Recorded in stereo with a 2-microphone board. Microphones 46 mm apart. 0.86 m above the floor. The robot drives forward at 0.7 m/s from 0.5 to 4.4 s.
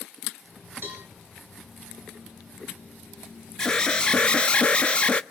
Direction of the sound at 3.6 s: 15° left (ahead or behind).